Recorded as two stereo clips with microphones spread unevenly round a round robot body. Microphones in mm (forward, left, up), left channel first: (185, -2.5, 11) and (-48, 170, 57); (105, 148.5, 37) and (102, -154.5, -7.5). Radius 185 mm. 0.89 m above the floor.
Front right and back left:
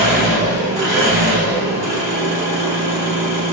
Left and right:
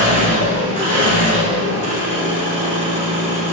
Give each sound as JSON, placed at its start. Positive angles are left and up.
{"t": 0.0, "sound": "an engine running", "azimuth_deg": 145, "distance_m": 2.0}